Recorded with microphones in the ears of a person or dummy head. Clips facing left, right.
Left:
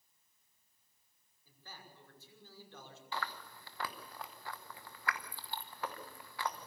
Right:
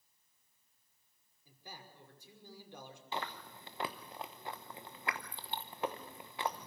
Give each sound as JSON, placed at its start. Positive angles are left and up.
{"t": 1.4, "sound": "a man speaking", "side_deg": -10, "distance_m": 5.0}
{"t": 3.1, "sound": "chewing", "side_deg": -25, "distance_m": 0.9}